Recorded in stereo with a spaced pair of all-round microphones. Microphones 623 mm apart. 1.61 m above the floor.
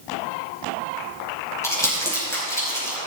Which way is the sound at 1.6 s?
5° left (ahead or behind).